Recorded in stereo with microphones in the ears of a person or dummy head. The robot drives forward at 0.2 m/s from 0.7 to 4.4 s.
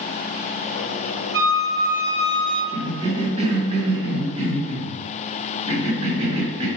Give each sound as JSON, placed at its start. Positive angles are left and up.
{"t": 1.3, "sound": "a flute", "side_deg": -20, "distance_m": 1.0}
{"t": 2.7, "sound": "a cough", "side_deg": -30, "distance_m": 1.4}